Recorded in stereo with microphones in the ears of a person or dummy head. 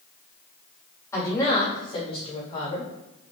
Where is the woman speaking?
15° left (ahead or behind), 2.5 m; by 2.9 s 45° left (ahead or behind), 3.5 m.